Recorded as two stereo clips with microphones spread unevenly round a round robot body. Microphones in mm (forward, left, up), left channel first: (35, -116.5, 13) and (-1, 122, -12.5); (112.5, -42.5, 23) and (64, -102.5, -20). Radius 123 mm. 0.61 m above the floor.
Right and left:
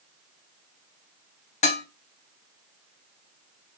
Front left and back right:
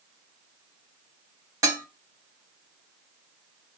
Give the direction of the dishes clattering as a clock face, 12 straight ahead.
5 o'clock.